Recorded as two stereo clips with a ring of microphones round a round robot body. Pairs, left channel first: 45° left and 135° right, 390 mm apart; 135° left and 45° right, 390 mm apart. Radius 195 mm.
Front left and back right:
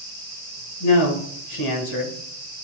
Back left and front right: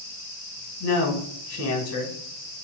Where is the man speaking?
85° left, 1.6 m.